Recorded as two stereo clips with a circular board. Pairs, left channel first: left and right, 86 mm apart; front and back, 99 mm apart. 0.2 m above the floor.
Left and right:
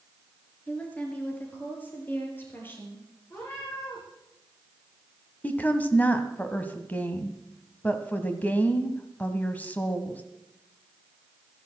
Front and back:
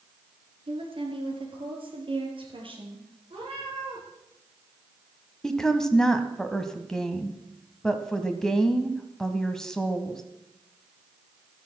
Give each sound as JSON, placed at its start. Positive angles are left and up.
{"t": 0.7, "sound": "a woman speaking", "azimuth_deg": 165, "distance_m": 3.0}
{"t": 3.3, "sound": "a cat meowing", "azimuth_deg": 150, "distance_m": 6.0}
{"t": 5.4, "sound": "a woman speaking", "azimuth_deg": 70, "distance_m": 1.2}